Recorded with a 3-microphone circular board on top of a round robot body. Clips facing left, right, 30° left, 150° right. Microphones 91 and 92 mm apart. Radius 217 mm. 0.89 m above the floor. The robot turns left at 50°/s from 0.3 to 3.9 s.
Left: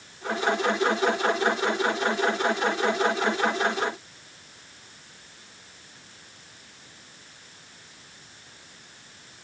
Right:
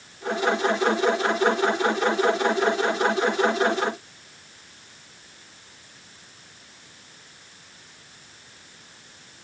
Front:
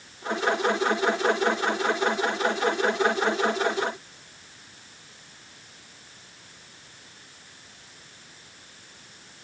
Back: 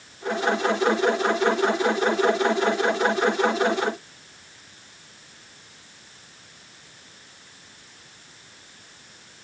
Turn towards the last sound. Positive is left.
No sound to turn to.